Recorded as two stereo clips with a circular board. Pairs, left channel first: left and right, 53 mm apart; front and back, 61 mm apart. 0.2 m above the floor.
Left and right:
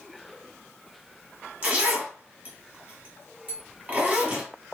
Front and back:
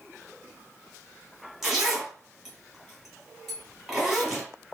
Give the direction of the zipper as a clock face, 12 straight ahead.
3 o'clock.